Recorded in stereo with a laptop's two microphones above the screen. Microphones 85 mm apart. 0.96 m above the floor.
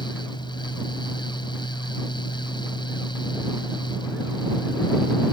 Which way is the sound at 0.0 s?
65° left (ahead or behind).